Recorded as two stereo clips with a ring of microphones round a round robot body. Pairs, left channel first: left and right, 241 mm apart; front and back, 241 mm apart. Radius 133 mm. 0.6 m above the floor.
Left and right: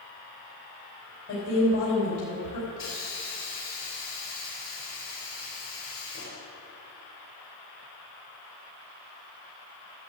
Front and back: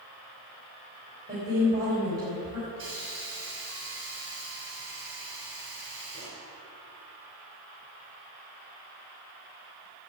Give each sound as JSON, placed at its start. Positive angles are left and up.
{"t": 1.3, "sound": "a woman speaking", "azimuth_deg": 125, "distance_m": 3.5}
{"t": 2.8, "sound": "a hiss", "azimuth_deg": 125, "distance_m": 4.0}